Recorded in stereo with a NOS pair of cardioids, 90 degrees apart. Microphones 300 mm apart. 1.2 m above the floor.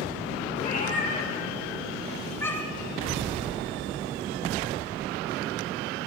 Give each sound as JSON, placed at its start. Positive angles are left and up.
{"t": 0.6, "sound": "a cat meowing", "azimuth_deg": 30, "distance_m": 3.0}